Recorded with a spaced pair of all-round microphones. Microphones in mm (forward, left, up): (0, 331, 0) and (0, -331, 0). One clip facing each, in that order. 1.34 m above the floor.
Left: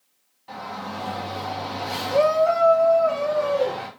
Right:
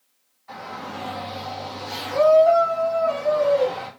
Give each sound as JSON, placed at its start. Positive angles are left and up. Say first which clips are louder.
{"t": 0.5, "sound": "a shout", "louder": "left 1 dB", "side_deg": 60, "distance_m": 1.7}